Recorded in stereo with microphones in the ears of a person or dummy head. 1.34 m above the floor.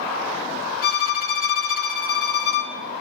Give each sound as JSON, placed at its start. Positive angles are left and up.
{"t": 0.8, "sound": "a violin", "side_deg": 60, "distance_m": 2.5}